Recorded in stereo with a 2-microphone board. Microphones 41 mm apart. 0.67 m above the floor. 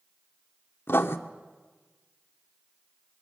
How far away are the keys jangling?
I don't hear keys jangling.